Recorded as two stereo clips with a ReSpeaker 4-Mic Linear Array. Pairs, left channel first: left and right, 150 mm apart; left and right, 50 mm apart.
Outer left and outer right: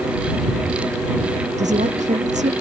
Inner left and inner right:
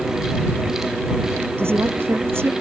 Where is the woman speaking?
55° right (ahead or behind).